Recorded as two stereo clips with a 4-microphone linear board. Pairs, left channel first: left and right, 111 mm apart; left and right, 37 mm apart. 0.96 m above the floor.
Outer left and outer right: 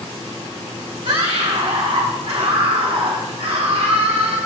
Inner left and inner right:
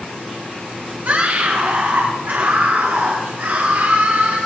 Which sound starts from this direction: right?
A scream, at 1.1 s.